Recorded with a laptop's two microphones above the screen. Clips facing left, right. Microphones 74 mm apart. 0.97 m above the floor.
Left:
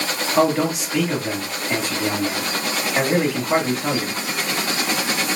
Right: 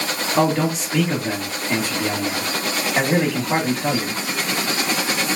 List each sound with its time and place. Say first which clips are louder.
0.4 s a man speaking: left 1 dB; centre (ahead or behind), 1.3 m